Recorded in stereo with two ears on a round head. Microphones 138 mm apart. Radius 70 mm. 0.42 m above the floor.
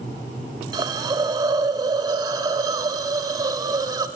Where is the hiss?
25° right (ahead or behind), 0.8 m.